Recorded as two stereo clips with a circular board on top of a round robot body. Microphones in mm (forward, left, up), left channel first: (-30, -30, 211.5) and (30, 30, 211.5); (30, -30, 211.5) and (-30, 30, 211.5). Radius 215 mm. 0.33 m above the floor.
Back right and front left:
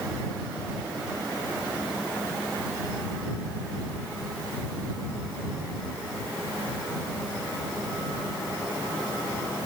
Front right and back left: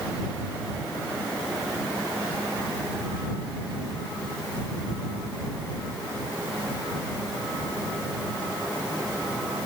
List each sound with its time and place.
Only background noise.